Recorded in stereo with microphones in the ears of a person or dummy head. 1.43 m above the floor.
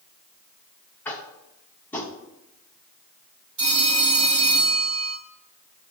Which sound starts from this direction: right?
A phone ringing, at 3.6 s.